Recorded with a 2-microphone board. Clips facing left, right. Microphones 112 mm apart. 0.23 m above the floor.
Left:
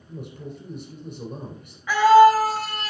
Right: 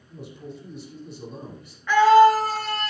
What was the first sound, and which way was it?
A man speaking, 40° left (ahead or behind).